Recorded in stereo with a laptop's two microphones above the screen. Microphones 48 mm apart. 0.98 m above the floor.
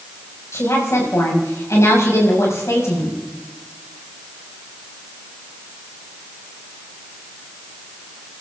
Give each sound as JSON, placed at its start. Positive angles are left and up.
{"t": 0.5, "sound": "a woman speaking", "side_deg": 85, "distance_m": 6.5}